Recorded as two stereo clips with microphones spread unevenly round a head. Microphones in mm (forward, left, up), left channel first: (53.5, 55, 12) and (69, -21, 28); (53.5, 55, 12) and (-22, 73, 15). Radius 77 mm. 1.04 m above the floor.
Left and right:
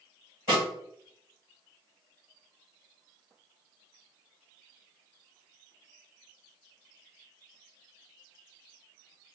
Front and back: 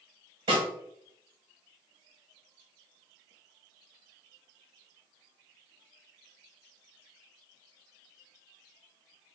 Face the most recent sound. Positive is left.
turn(degrees=-160)